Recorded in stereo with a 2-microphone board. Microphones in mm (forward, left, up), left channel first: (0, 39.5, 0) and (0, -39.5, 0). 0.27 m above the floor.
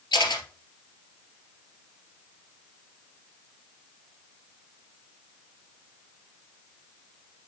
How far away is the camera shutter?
About 2 m.